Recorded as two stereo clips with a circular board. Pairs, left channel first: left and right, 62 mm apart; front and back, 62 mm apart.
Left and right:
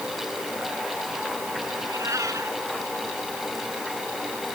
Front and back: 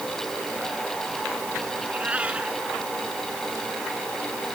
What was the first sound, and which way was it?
A cat meowing, 115° right.